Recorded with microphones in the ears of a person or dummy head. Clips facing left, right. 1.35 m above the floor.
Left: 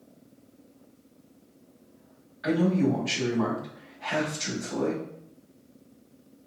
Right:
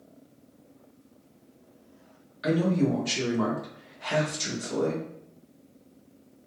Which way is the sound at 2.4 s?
55° right (ahead or behind).